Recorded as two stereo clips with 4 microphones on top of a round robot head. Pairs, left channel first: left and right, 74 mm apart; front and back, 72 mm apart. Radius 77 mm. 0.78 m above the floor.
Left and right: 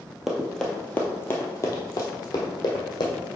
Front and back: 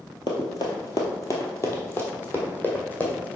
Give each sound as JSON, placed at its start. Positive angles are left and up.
{"t": 0.3, "sound": "running footsteps", "azimuth_deg": -5, "distance_m": 1.0}